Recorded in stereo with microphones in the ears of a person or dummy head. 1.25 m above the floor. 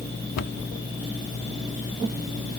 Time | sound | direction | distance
0.4 | a cupboard door | 75° left (ahead or behind) | ?